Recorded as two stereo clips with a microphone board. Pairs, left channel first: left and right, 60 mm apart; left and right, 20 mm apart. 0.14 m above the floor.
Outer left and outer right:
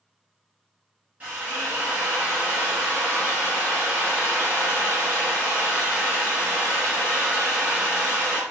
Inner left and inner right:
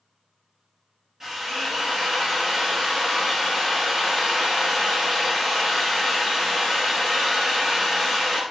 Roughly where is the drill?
Right.